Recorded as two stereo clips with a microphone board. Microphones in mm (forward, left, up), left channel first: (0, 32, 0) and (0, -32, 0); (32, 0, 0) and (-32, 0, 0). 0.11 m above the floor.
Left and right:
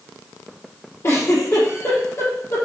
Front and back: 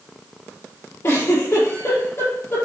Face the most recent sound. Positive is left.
turn(degrees=50)